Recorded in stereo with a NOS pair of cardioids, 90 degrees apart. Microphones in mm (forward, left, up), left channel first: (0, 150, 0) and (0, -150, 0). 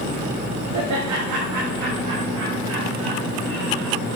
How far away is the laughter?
About 1.5 m.